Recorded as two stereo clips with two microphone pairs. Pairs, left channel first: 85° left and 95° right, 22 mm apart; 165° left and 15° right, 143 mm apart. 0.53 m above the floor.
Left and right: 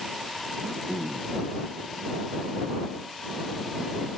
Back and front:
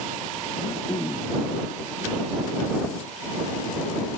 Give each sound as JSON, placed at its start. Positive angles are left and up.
{"t": 0.6, "sound": "throat clearing", "azimuth_deg": -135}